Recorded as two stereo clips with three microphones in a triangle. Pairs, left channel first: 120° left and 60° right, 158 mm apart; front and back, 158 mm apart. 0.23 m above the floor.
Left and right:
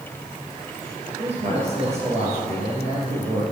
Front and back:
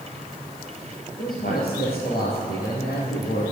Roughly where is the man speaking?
Ahead.